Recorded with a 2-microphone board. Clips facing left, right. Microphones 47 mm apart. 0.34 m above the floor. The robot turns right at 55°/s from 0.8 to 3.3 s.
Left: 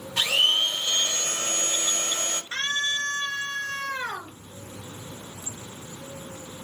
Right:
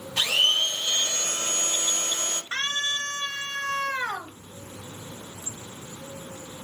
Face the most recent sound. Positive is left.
turn(degrees=-95)